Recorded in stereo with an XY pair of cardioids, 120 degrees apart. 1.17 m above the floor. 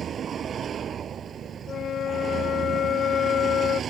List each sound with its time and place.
0.0 s a vehicle: 40° right
1.7 s a flute: 50° left